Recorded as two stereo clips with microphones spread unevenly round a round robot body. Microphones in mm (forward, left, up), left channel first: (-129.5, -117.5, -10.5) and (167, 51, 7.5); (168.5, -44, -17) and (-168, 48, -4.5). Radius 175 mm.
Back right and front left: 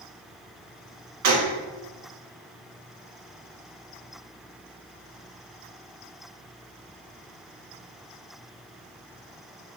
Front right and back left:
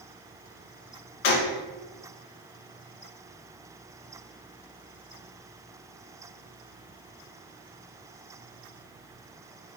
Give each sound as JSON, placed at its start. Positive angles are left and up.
{"t": 1.2, "sound": "a gunshot", "azimuth_deg": -20, "distance_m": 0.6}